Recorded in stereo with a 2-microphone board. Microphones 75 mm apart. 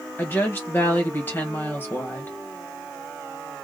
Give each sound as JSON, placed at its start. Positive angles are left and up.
{"t": 0.2, "sound": "a woman speaking", "side_deg": 25, "distance_m": 1.5}